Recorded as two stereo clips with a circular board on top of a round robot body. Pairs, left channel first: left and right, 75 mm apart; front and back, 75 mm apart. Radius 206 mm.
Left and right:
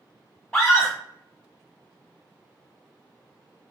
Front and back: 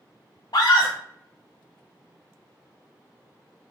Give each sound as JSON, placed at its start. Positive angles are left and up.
{"t": 0.5, "sound": "a scream", "azimuth_deg": 10, "distance_m": 0.5}